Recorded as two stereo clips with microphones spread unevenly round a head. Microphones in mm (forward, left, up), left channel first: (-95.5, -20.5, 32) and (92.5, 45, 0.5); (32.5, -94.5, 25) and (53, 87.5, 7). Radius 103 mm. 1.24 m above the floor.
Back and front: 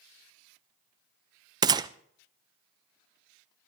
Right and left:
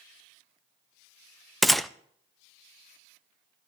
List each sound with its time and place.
1.6 s a gunshot: straight ahead, 0.5 m